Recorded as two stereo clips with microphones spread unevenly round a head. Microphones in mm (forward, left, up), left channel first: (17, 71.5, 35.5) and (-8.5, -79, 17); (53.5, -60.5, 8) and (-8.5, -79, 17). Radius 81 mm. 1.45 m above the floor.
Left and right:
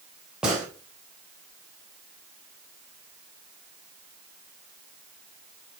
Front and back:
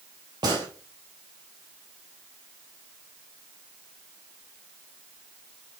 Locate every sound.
0.4 s a gunshot: 175° left, 3.5 m